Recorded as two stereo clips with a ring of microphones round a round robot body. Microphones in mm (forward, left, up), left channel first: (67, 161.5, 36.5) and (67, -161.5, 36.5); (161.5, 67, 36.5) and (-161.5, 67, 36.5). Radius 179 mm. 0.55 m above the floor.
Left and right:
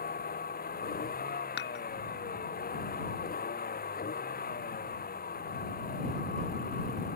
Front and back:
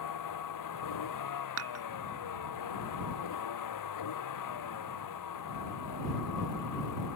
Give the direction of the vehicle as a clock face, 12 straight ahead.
11 o'clock.